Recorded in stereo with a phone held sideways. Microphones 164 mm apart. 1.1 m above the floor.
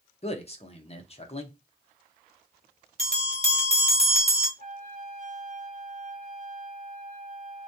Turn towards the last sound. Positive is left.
turn(degrees=-50)  # may be behind; listen again after turning